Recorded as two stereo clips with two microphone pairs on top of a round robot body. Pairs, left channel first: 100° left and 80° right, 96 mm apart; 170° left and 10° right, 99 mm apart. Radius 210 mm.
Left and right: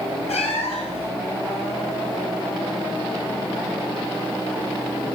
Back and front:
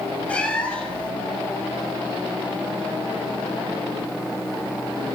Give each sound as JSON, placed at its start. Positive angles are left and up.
{"t": 0.3, "sound": "a cat meowing", "azimuth_deg": 95, "distance_m": 1.9}